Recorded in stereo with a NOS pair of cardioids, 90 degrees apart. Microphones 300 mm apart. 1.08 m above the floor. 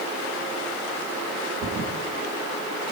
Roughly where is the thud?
Ahead right.